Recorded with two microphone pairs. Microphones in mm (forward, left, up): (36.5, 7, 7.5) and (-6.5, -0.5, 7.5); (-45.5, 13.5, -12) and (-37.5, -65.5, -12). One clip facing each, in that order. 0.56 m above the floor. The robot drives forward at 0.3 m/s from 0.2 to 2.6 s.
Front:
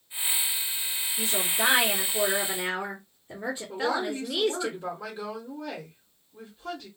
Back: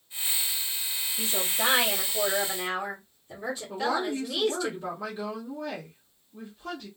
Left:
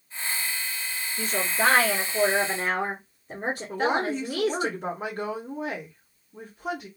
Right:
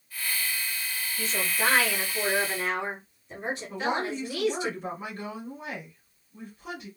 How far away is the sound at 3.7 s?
About 1.6 m.